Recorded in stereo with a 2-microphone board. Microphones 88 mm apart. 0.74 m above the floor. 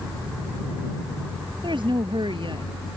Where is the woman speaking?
65° right (ahead or behind).